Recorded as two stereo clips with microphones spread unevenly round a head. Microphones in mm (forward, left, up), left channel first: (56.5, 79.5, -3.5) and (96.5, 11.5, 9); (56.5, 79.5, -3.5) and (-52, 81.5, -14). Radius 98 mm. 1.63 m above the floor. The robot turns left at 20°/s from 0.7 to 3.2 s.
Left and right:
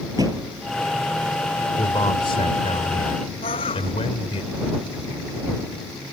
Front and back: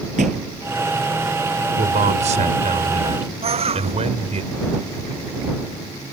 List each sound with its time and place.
0.2 s a thud: 130° right
1.8 s a man speaking: 175° right; by 4.4 s 160° left
3.4 s a bird: 155° left